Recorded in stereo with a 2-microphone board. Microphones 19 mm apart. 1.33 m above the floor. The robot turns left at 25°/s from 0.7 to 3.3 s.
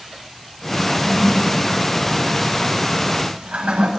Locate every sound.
0.9 s a toilet flushing: 25° right (ahead or behind), 9 m; by 3.9 s 85° right, 9 m